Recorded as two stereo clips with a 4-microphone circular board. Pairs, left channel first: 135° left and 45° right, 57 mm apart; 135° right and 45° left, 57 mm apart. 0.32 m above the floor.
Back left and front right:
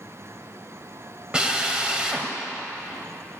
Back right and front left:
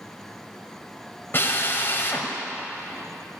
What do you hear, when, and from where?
1.3 s a drill: 110° right, 1.6 m